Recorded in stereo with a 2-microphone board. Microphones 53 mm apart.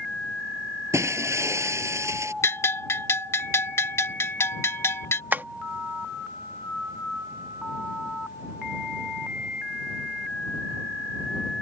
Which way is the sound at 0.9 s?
70° right (ahead or behind).